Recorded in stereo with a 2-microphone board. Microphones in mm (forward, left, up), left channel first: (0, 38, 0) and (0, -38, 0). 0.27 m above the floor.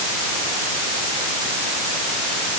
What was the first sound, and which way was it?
Only background noise.